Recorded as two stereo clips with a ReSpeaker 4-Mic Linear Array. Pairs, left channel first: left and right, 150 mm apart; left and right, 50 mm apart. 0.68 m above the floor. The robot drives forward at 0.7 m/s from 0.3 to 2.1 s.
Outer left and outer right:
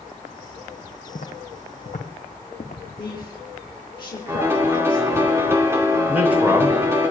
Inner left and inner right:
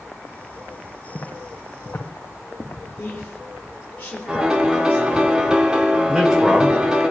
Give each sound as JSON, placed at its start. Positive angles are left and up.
{"t": 1.1, "sound": "footsteps", "side_deg": 55, "distance_m": 1.5}
{"t": 3.0, "sound": "a woman speaking", "side_deg": 30, "distance_m": 3.0}
{"t": 4.3, "sound": "a piano", "side_deg": -15, "distance_m": 2.0}
{"t": 6.1, "sound": "a man speaking", "side_deg": -10, "distance_m": 3.5}